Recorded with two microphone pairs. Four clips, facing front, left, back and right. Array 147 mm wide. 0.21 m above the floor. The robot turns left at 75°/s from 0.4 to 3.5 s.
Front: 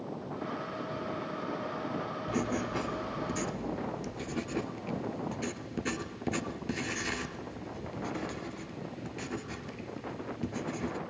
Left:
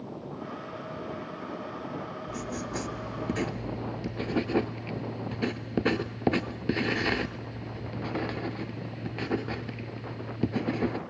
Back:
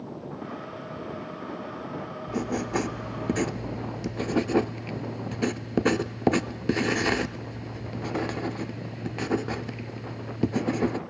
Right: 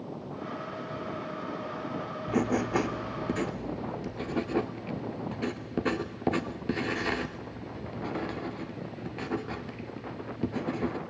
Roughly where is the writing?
Right.